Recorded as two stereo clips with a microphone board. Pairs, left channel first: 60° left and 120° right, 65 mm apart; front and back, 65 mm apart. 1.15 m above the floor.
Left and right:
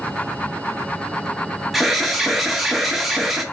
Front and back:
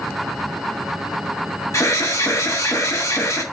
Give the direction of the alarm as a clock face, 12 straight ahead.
1 o'clock.